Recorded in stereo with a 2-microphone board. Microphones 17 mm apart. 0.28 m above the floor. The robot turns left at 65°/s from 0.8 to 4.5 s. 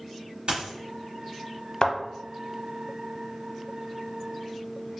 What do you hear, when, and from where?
0.5 s a dropped coin: 60° right (ahead or behind), 1.3 m
1.8 s a thud: 50° left (ahead or behind), 0.6 m; by 1.9 s 45° left (ahead or behind), 0.6 m